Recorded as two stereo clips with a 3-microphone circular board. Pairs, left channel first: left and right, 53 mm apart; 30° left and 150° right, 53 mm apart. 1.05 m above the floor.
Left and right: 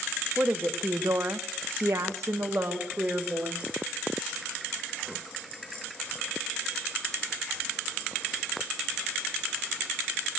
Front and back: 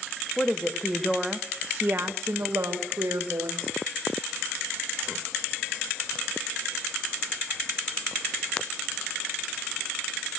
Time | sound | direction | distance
0.4 | a woman speaking | 40° right | 1.0 m